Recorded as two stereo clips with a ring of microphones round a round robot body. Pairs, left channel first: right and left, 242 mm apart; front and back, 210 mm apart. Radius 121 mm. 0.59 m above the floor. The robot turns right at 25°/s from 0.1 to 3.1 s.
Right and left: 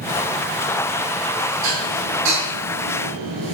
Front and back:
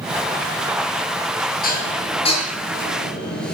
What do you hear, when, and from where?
1.6 s dishes clattering: 50° left, 6.5 m; by 3.5 s 85° left, 6.5 m